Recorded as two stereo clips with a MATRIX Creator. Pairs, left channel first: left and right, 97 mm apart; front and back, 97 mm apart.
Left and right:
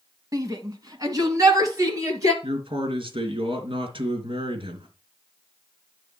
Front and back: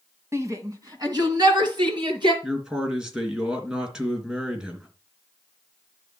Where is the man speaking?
100° right, 2.5 m.